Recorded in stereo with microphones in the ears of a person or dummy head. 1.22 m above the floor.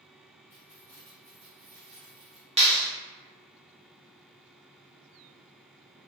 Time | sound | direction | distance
0.5 | keys jangling | 10° left (ahead or behind) | 0.7 m
2.6 | a clap | 25° right (ahead or behind) | 0.8 m